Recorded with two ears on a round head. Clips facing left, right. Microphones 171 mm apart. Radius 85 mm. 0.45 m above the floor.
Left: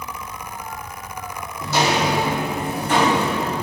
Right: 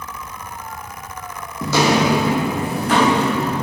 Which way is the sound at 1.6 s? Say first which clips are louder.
Right 4 dB; 60° right (ahead or behind).